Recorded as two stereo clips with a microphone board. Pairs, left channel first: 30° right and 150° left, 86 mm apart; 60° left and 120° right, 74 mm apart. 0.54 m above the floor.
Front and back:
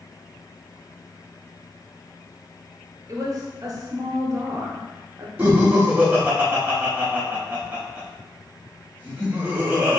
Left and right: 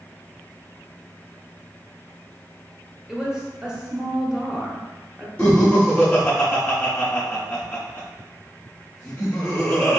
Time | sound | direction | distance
3.1 | a woman speaking | 165° left | 0.8 m
5.4 | laughter | 105° left | 1.0 m